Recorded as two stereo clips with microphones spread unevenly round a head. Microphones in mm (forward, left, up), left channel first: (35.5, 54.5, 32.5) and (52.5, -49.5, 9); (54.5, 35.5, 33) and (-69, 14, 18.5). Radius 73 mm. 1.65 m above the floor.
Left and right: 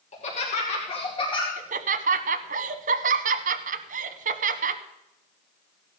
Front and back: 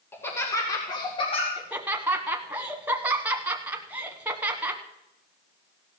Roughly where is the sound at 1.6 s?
Right.